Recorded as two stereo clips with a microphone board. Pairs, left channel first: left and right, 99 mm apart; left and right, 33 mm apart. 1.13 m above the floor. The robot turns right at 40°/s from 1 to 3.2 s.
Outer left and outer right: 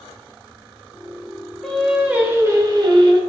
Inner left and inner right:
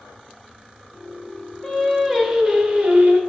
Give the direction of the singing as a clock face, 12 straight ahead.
6 o'clock.